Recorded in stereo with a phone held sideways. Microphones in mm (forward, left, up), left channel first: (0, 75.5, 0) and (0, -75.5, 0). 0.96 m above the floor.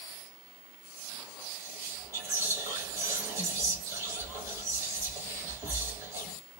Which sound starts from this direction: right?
Whispering, at 1.5 s.